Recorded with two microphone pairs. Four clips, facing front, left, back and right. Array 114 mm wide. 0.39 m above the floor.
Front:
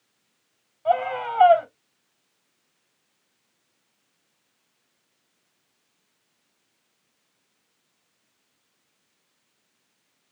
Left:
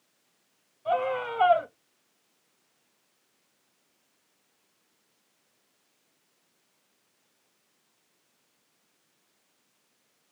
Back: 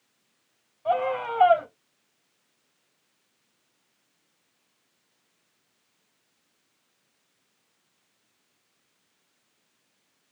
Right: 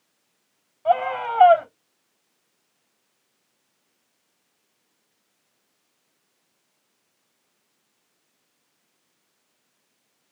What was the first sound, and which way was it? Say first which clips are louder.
A scream: right 6 dB, front 2 dB; 75° right.